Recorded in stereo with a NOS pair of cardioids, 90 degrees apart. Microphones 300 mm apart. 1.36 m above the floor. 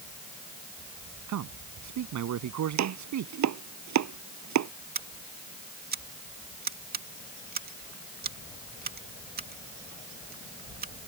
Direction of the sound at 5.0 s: 30° right.